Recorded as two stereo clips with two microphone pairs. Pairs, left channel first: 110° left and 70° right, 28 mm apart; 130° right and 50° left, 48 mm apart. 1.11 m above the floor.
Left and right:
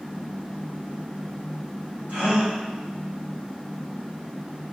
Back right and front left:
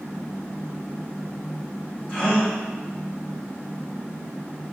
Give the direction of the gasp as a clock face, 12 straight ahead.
2 o'clock.